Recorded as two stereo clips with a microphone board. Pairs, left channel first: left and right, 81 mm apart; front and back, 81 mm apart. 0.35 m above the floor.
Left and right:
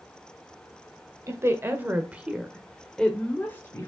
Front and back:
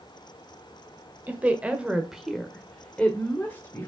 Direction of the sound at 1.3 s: 120° right.